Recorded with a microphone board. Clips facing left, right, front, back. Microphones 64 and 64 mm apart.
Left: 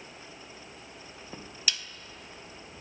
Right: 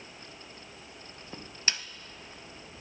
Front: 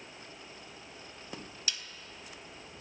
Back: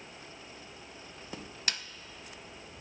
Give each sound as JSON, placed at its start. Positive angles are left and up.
{"t": 1.7, "sound": "a snare drum", "azimuth_deg": -145, "distance_m": 0.5}